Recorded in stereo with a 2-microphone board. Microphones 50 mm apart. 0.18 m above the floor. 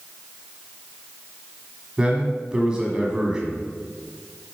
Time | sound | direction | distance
2.0 | a man speaking | 15° right (ahead or behind) | 1.0 m